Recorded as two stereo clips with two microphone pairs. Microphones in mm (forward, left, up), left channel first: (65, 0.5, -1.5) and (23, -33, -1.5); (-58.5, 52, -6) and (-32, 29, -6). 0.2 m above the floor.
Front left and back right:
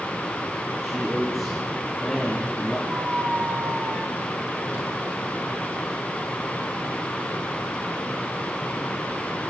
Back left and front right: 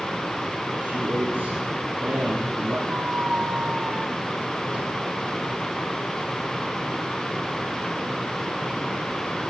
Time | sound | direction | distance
0.8 | a man speaking | 60° right | 4.5 m
2.9 | a squeak | 85° right | 2.5 m